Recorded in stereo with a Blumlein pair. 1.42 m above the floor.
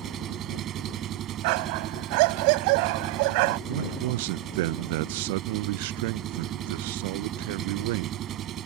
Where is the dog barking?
45° right.